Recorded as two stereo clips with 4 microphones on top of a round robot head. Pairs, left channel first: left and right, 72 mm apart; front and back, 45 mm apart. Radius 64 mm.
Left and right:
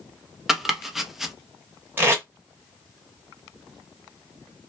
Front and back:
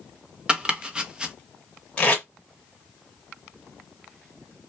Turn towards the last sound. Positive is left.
turn(degrees=-50)